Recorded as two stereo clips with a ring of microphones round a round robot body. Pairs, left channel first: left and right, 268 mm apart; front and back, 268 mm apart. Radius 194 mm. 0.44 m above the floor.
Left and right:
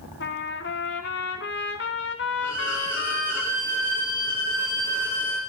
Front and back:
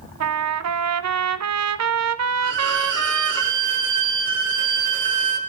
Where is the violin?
170° right, 4 m.